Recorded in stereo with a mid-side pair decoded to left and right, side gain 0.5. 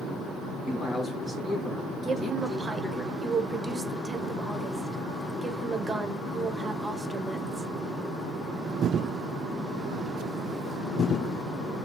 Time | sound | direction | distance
0.7 | a man speaking | 10° right | 2 m
2.0 | a woman speaking | 25° right | 1.0 m